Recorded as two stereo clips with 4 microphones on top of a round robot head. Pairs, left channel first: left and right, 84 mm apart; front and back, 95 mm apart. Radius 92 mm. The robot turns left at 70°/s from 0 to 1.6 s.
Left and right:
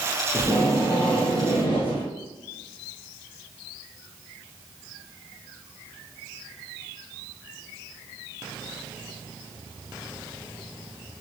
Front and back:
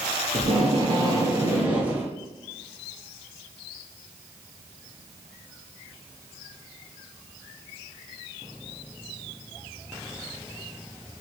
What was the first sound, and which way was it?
Tape being pulled, 165° right.